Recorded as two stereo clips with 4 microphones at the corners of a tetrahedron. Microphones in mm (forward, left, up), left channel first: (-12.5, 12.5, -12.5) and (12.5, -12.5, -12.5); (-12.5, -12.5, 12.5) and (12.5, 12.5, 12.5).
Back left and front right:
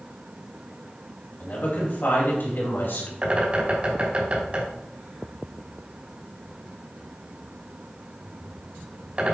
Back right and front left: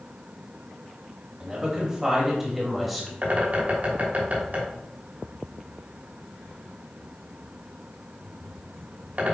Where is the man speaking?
110° left, 2.5 m; by 3.1 s 135° left, 3 m.